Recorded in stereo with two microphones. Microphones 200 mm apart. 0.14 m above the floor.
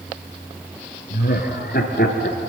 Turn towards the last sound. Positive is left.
turn(degrees=55)  # may be behind; listen again after turning